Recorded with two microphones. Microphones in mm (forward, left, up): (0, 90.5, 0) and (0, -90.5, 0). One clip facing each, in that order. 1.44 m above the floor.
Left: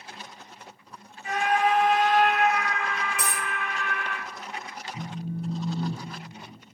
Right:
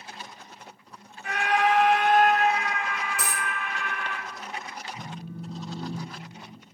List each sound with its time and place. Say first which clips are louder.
1.2 s a scream: even; 60° right (ahead or behind), 1.5 m; by 4.2 s 5° left (ahead or behind), 3.5 m
3.2 s a dropped coin: left 1 dB; centre (ahead or behind), 1.0 m
4.9 s a phone buzzing: left 4 dB; 45° left (ahead or behind), 1.4 m